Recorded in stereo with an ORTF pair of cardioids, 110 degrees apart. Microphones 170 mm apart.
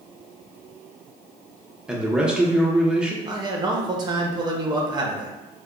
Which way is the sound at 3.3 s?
25° right.